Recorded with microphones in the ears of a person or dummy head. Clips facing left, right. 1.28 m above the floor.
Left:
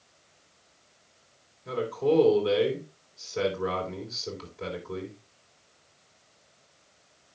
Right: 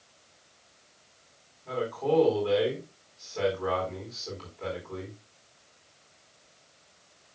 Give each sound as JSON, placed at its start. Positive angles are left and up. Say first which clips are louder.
{"t": 1.6, "sound": "a man speaking", "louder": "left 2 dB", "side_deg": 30, "distance_m": 4.0}